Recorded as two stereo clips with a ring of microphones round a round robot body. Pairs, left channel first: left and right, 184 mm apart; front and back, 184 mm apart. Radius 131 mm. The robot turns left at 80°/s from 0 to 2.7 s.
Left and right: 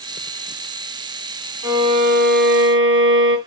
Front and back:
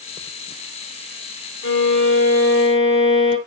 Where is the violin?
15° right, 3.5 m; by 3.4 s 105° right, 3.5 m.